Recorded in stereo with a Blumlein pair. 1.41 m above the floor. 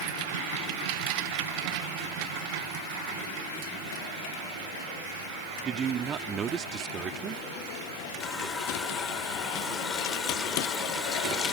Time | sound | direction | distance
5.7 | a man speaking | 25° right | ?
8.2 | a running tap | 15° left | ?